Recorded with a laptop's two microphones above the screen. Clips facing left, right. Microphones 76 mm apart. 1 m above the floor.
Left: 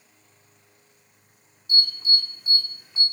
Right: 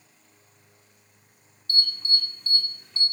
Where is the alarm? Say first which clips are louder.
Left 2 dB; 10° left (ahead or behind), 2.5 m.